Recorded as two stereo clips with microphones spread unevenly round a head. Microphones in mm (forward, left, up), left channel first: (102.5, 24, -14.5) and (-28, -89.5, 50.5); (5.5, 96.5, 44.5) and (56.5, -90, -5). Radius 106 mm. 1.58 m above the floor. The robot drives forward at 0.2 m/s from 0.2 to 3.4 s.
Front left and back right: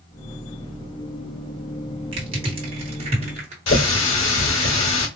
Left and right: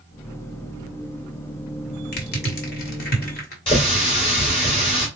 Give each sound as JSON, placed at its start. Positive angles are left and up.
{"t": 2.1, "sound": "crushing", "azimuth_deg": 155, "distance_m": 1.0}
{"t": 3.7, "sound": "a running tap", "azimuth_deg": 45, "distance_m": 2.5}